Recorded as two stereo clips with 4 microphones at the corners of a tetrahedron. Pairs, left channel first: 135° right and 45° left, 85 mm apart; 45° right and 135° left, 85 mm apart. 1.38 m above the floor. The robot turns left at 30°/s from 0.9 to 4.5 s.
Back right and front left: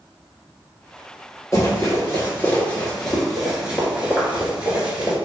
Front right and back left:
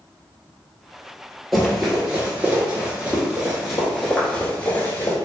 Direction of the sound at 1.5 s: 130° right.